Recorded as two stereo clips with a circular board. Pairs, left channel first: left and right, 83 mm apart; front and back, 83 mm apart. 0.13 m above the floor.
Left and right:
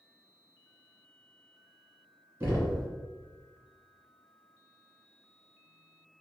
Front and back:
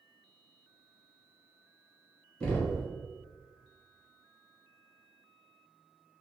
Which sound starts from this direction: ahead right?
Knocking, at 2.4 s.